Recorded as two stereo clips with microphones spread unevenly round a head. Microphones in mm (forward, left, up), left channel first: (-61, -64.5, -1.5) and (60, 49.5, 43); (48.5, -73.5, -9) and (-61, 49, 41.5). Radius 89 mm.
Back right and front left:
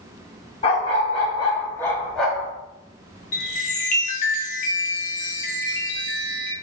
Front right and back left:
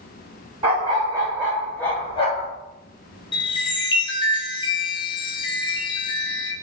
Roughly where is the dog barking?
Behind.